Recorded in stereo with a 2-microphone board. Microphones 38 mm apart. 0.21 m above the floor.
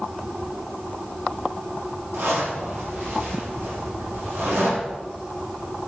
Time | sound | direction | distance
2.1 | a zipper | 75° right (ahead or behind) | 6.5 m